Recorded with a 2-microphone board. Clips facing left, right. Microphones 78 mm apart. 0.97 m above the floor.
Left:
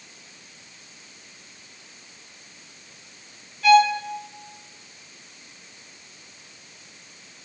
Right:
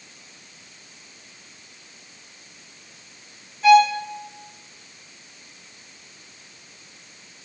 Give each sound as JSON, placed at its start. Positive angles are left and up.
{"t": 3.6, "sound": "a violin", "side_deg": -20, "distance_m": 3.5}